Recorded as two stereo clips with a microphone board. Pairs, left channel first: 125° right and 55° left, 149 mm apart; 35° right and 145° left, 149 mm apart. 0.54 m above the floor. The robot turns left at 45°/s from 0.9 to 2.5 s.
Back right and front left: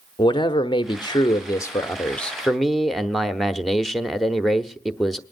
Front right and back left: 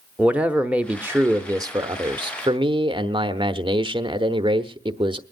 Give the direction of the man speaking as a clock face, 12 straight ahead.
5 o'clock.